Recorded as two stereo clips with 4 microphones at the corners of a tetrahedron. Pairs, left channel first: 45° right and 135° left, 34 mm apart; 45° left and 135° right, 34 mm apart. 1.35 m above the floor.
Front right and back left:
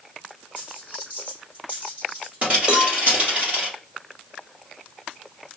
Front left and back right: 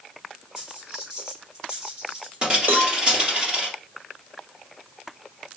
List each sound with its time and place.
0.6 s a dropped coin: 175° left, 2 m
2.7 s a cowbell: 155° right, 0.7 m